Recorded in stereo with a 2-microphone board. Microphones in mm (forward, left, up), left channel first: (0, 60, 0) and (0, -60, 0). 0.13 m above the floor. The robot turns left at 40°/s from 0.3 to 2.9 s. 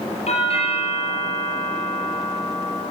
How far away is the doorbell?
About 5.5 m.